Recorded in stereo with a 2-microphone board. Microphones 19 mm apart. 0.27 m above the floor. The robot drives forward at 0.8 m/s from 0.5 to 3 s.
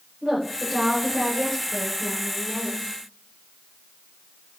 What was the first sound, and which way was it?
A woman speaking, 20° left (ahead or behind).